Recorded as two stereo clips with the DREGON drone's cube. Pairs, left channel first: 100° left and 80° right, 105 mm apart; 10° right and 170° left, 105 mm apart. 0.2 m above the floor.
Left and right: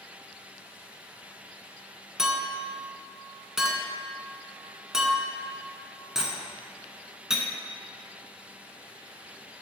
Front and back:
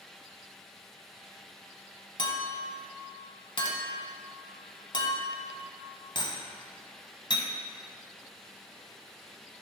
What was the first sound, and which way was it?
A clink, 5° left.